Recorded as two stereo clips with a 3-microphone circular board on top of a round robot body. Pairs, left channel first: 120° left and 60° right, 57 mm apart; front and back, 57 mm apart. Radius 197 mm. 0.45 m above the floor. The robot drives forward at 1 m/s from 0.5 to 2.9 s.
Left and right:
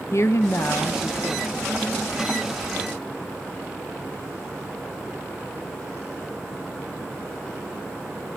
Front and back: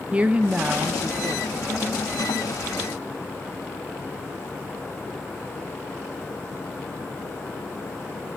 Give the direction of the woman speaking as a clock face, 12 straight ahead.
8 o'clock.